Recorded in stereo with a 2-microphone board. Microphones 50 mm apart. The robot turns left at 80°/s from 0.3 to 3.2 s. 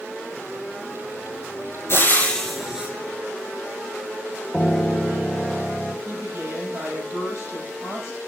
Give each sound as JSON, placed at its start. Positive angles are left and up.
{"t": 1.9, "sound": "frying", "azimuth_deg": 50, "distance_m": 4.0}
{"t": 4.5, "sound": "a piano", "side_deg": 5, "distance_m": 1.0}
{"t": 6.0, "sound": "a woman speaking", "side_deg": -80, "distance_m": 6.5}